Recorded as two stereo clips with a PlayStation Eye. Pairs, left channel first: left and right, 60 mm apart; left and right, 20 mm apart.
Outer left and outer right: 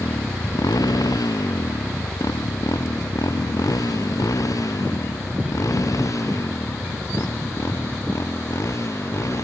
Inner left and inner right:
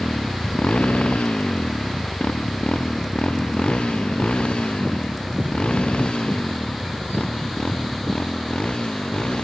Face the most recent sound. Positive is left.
turn(degrees=50)  # may be behind; listen again after turning